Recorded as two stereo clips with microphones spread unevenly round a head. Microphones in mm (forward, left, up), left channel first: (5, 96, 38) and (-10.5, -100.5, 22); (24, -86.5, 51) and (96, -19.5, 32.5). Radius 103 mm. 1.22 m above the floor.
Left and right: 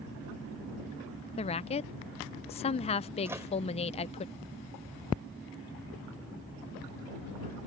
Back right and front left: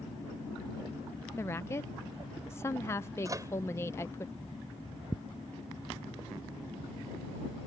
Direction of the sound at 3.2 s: 15° right.